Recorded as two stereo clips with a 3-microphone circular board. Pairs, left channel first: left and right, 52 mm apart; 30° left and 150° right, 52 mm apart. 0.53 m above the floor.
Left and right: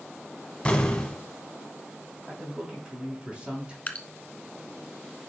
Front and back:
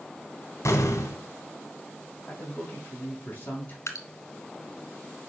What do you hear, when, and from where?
0.7 s an explosion: 20° left, 1.2 m
2.3 s a man speaking: 20° right, 3 m
3.9 s dripping: 30° left, 1.1 m